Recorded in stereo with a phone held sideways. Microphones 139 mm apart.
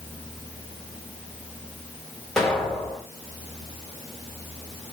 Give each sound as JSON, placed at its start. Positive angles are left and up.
{"t": 2.4, "sound": "an explosion", "side_deg": 0, "distance_m": 1.7}